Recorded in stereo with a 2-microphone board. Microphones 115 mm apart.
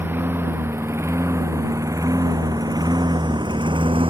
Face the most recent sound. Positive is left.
turn(degrees=-50)  # may be behind; listen again after turning